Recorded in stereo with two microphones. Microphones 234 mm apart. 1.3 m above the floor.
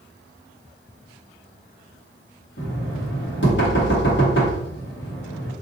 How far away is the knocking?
About 1.3 m.